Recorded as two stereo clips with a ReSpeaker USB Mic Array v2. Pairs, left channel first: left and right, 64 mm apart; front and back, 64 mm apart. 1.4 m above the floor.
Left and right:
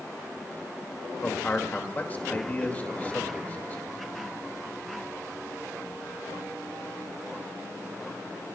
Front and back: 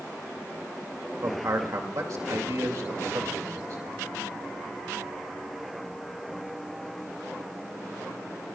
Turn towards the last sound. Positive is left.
turn(degrees=150)